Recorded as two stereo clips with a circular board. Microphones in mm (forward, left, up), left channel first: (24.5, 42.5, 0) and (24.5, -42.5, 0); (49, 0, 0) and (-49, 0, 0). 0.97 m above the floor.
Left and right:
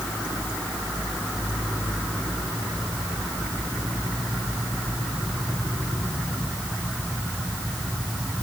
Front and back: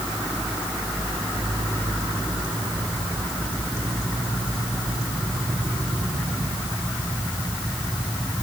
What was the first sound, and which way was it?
Only background noise.